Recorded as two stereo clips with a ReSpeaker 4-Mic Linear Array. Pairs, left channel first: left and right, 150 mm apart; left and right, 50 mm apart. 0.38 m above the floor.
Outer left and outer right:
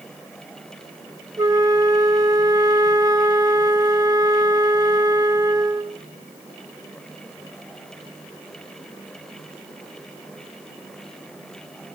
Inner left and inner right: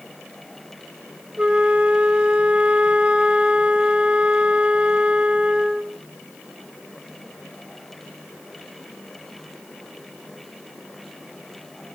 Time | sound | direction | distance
1.4 | a flute | 25° right (ahead or behind) | 0.7 m